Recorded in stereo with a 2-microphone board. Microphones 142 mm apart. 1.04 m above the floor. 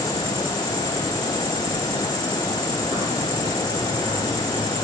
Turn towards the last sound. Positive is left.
turn(degrees=-45)  # may be behind; listen again after turning